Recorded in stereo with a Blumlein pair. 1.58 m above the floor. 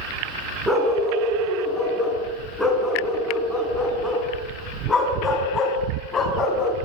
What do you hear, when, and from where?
0.7 s a dog barking: 5° right, 7.5 m; by 6.8 s 20° left, 4.5 m